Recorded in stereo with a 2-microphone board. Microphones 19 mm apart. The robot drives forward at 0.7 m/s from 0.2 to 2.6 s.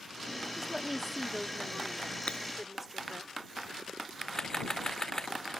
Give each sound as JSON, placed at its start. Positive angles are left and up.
{"t": 0.5, "sound": "a woman speaking", "side_deg": -15}
{"t": 2.3, "sound": "breaking glass", "side_deg": 85}
{"t": 4.3, "sound": "a camera shutter", "side_deg": 30}